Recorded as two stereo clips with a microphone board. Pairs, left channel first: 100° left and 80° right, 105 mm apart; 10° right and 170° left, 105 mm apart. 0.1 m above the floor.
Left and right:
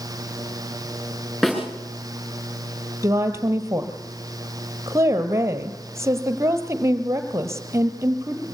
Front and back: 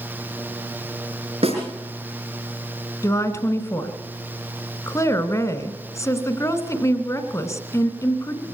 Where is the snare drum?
175° right, 6.5 m.